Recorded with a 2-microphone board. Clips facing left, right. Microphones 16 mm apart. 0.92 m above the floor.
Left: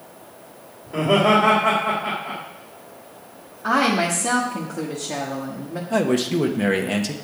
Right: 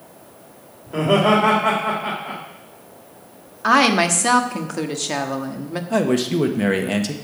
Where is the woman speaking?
50° right (ahead or behind), 1.3 m.